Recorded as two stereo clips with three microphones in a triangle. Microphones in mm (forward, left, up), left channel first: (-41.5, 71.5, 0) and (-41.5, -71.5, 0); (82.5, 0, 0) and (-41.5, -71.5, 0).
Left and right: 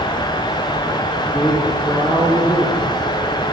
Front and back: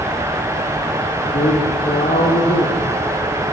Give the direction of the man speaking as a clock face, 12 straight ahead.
12 o'clock.